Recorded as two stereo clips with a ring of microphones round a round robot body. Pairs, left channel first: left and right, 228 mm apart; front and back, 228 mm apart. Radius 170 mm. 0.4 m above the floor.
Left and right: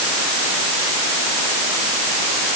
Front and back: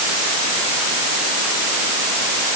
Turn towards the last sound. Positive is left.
No sound to turn to.